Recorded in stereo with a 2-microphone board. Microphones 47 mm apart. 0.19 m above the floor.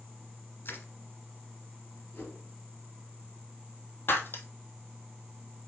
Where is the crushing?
55° left (ahead or behind), 1.8 m.